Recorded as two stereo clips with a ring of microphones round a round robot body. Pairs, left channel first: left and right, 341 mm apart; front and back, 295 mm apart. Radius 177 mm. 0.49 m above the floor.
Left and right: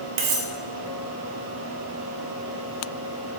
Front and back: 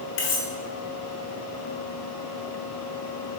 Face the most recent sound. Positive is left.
turn(degrees=-50)